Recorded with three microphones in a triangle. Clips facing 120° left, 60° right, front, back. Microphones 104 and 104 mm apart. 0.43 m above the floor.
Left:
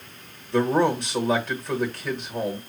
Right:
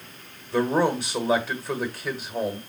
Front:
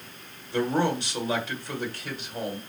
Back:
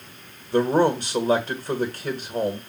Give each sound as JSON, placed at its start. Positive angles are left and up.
{"t": 0.5, "sound": "a man speaking", "azimuth_deg": -145, "distance_m": 1.3}